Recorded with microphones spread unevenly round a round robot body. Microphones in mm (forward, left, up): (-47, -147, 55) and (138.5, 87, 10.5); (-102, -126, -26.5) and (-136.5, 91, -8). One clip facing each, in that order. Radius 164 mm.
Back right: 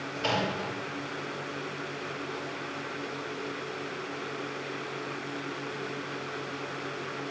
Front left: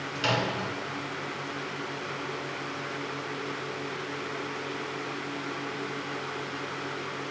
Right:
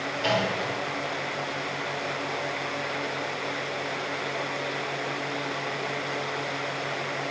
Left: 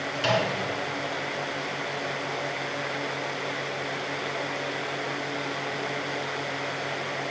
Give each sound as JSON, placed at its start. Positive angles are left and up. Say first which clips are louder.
{"t": 0.1, "sound": "a microwave", "louder": "front left 1 dB, left 1 dB", "azimuth_deg": 85, "distance_m": 2.5}